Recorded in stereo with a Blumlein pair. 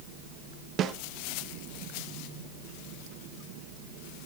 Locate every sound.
0.8 s a snare drum: 30° right, 1.2 m